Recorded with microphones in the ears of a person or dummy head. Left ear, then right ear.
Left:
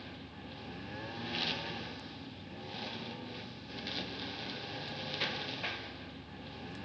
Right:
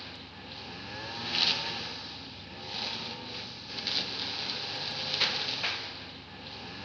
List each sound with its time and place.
0.0 s a lawn mower: 40° right (ahead or behind)